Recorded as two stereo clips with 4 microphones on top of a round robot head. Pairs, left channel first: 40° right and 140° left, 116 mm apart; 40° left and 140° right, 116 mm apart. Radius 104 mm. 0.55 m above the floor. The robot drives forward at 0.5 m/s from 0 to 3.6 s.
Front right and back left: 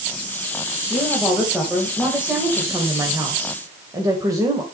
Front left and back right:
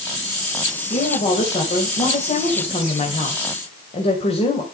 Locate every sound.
0.9 s a woman speaking: 50° left, 3 m; by 4.7 s 75° left, 2.5 m